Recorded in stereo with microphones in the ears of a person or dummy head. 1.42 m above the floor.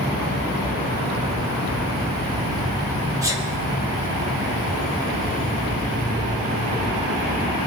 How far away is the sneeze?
About 1.4 m.